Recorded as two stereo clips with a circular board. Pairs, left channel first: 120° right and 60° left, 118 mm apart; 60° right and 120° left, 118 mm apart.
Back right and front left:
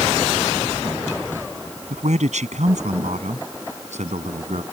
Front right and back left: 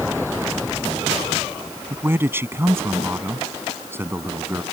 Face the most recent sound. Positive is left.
turn(degrees=50)